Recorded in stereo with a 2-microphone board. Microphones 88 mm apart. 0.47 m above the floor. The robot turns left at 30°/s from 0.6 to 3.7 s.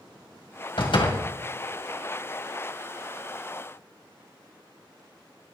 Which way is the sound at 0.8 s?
70° left (ahead or behind).